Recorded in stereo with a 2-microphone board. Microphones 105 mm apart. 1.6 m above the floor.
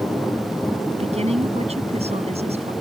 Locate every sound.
0.9 s a woman speaking: 80° right